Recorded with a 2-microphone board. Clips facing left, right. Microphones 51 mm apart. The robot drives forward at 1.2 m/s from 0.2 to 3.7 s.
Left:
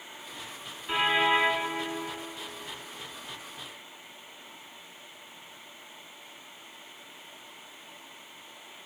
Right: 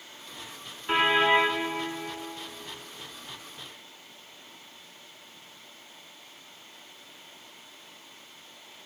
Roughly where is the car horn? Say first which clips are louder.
Right 3 dB; right.